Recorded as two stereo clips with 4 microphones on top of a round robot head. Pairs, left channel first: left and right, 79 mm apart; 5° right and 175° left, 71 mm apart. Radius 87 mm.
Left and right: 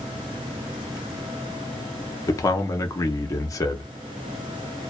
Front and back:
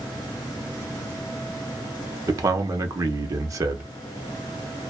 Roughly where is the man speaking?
Behind left.